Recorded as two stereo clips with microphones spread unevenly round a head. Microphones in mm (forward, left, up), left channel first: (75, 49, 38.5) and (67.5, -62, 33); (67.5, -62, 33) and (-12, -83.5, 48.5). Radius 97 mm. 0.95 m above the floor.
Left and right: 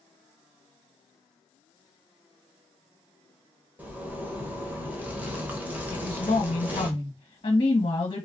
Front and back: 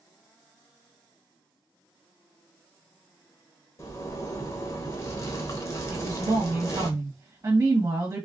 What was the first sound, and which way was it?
A zipper, 20° right.